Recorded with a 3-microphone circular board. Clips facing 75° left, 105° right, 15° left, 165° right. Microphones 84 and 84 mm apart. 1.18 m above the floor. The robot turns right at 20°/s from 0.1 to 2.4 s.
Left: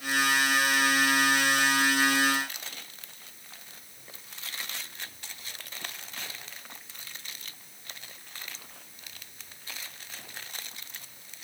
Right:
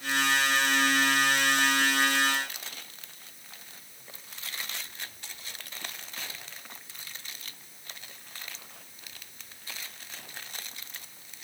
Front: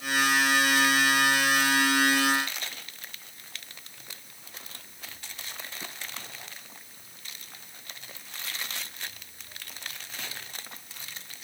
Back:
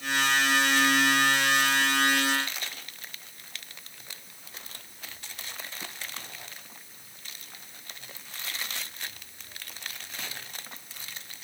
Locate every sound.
Only background noise.